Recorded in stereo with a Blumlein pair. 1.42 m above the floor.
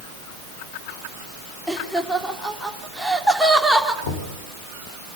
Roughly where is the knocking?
Ahead left.